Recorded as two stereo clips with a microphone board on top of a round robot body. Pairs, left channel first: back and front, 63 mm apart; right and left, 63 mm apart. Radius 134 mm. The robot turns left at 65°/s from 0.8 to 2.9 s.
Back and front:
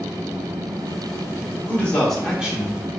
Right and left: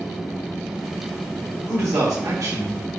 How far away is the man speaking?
About 1.9 m.